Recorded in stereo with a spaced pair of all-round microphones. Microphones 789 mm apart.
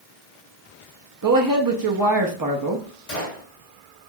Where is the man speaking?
30° right (ahead or behind), 0.6 m.